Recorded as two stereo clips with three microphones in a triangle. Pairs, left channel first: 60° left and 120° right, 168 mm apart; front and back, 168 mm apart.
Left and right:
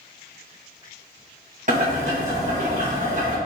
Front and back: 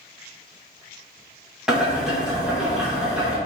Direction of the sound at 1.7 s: 95° right.